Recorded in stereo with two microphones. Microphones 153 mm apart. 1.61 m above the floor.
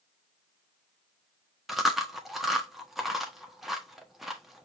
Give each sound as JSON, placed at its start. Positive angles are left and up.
{"t": 1.7, "sound": "chewing", "side_deg": 0, "distance_m": 1.0}